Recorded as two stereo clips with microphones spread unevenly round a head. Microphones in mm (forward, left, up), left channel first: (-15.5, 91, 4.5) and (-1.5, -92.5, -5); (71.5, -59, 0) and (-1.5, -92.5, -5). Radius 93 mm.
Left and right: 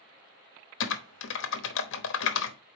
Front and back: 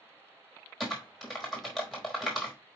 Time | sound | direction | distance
0.8 | typing on a keyboard | 115° left | 0.9 m